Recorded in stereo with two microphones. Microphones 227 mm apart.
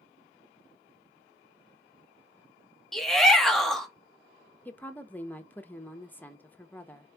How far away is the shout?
About 1.3 m.